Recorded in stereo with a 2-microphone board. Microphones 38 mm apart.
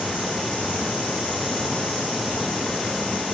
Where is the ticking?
No ticking in this recording.